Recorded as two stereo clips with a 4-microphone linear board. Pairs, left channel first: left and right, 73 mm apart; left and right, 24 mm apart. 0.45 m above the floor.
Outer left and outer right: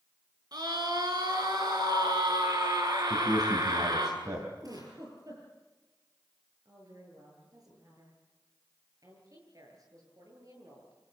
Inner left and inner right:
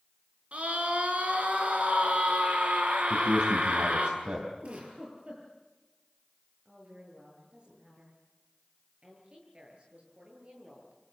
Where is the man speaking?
60° right (ahead or behind), 3.5 m.